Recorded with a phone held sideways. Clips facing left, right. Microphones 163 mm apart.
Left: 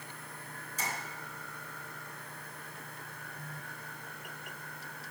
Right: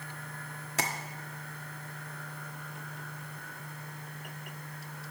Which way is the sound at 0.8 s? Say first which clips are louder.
Right 5 dB; 75° right (ahead or behind).